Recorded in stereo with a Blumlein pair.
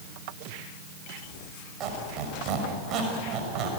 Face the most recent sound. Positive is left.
turn(degrees=-35)